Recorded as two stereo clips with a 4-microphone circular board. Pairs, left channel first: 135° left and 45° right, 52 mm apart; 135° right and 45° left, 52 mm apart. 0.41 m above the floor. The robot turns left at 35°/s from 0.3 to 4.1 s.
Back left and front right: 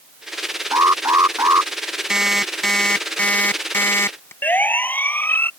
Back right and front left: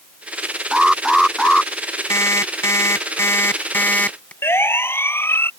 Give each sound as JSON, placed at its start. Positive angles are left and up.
{"t": 0.7, "sound": "an alarm", "azimuth_deg": -30}
{"t": 2.1, "sound": "an alarm clock", "azimuth_deg": -120}
{"t": 4.4, "sound": "a siren", "azimuth_deg": -170}